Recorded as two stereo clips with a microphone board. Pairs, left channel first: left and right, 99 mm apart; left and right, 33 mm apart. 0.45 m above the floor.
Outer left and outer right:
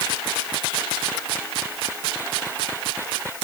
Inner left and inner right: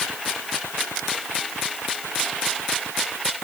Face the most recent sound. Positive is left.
No sound to turn to.